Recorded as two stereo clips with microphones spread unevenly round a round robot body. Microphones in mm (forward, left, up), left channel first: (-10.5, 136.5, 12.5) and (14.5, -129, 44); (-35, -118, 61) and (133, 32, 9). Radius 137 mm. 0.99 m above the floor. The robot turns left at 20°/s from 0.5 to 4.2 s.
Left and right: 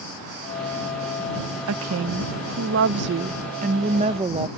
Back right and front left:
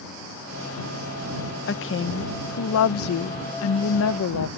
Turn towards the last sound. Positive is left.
turn(degrees=-155)